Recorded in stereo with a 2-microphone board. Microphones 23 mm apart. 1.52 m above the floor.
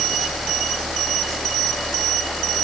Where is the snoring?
No snoring in this recording.